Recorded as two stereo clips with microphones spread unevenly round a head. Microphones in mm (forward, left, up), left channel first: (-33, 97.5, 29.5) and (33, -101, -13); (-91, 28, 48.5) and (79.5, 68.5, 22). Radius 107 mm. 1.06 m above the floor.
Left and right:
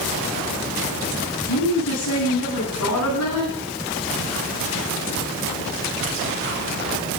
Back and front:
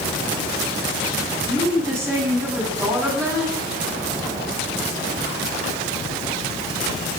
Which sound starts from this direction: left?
A woman speaking, at 1.5 s.